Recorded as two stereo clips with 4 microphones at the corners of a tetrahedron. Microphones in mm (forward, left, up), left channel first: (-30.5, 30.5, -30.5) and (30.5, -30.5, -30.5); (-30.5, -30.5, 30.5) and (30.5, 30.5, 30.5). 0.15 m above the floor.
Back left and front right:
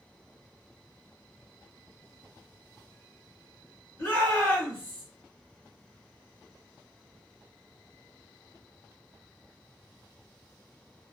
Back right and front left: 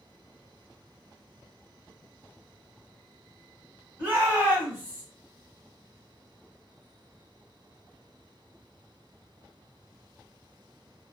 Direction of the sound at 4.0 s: 95° left.